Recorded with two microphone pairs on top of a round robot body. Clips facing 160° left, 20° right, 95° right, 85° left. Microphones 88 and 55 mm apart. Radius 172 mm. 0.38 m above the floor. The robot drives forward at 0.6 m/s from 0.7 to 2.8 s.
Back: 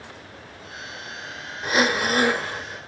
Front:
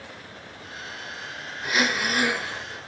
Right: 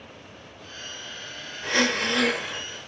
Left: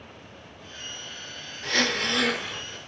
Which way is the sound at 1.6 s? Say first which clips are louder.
Back 4 dB, right 2 dB; 165° right.